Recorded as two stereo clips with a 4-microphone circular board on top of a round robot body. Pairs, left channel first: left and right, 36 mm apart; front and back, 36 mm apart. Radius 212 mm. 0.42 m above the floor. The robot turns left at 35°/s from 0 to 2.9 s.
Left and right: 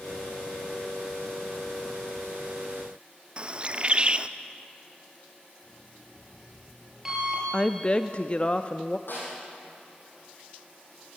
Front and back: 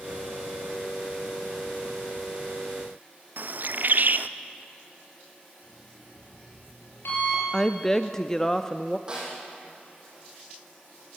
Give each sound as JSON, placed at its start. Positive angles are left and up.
{"t": 3.4, "sound": "a bird", "azimuth_deg": -150, "distance_m": 0.7}
{"t": 5.6, "sound": "an alarm clock", "azimuth_deg": -10, "distance_m": 8.0}
{"t": 7.5, "sound": "a woman speaking", "azimuth_deg": 65, "distance_m": 1.0}
{"t": 9.1, "sound": "a snare drum", "azimuth_deg": 115, "distance_m": 7.0}